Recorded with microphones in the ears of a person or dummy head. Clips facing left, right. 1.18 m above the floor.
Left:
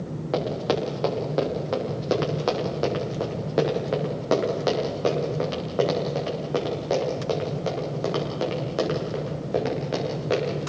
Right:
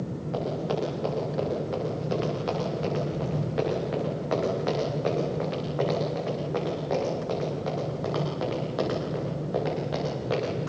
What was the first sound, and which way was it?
Running footsteps, 80° left.